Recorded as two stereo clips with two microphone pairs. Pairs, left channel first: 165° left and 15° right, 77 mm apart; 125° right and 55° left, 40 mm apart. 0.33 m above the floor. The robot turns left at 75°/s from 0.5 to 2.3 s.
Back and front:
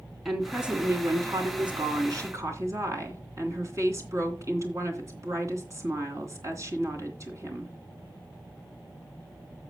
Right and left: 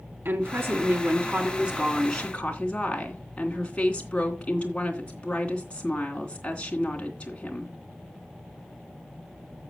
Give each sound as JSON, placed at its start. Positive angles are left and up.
{"t": 0.2, "sound": "a woman speaking", "azimuth_deg": 70, "distance_m": 3.0}